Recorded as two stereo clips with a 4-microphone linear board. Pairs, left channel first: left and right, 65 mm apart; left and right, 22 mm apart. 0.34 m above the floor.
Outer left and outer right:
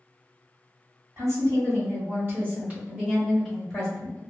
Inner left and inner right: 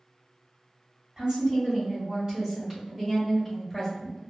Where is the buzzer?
No buzzer in this recording.